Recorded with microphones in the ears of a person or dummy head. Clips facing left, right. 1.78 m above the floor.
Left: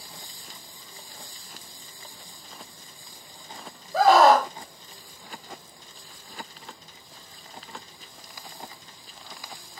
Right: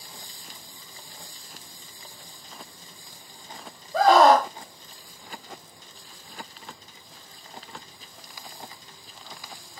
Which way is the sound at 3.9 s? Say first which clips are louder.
Even; 5° left (ahead or behind).